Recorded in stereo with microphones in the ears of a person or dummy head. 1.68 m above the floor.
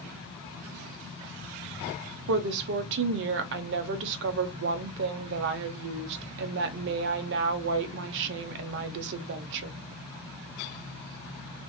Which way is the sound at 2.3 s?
60° right (ahead or behind).